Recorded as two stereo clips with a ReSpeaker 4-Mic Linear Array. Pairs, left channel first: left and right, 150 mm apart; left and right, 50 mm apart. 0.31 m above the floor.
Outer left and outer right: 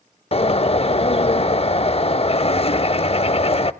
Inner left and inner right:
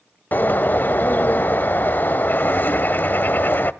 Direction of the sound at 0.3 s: 40° left (ahead or behind).